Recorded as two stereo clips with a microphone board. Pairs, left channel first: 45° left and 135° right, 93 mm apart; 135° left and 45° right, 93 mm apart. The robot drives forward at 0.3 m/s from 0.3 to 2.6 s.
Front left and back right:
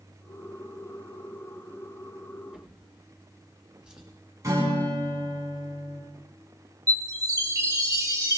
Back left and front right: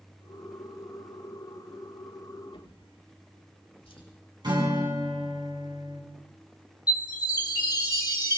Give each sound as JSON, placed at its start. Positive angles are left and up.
{"t": 2.5, "sound": "a drawer", "azimuth_deg": 140, "distance_m": 5.0}
{"t": 4.4, "sound": "a guitar", "azimuth_deg": -80, "distance_m": 6.0}
{"t": 6.9, "sound": "a chime", "azimuth_deg": 175, "distance_m": 2.5}